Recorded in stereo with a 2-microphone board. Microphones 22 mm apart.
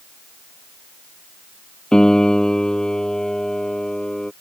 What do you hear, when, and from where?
1.9 s a piano: 35° left (ahead or behind)